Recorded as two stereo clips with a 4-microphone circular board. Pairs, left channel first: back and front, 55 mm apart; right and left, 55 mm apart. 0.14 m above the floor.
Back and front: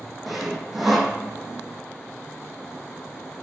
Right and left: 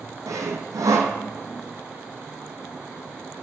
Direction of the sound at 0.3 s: 85° left.